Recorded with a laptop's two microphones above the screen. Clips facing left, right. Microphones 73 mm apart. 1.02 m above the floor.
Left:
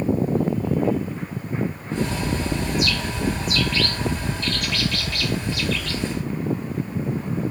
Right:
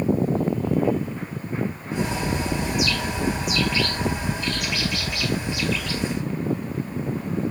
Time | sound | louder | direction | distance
1.9 | a bird | even | 15° right (ahead or behind) | 2.5 m